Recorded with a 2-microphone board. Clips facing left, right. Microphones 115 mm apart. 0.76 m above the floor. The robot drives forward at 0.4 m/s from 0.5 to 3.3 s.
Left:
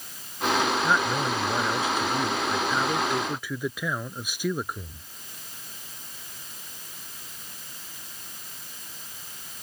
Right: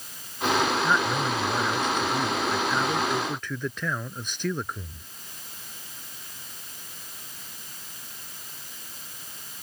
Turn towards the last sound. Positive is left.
turn(degrees=10)  # may be behind; listen again after turning